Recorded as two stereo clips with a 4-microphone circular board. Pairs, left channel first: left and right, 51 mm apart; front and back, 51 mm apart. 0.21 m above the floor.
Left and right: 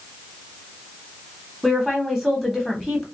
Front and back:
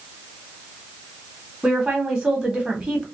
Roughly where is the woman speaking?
Behind.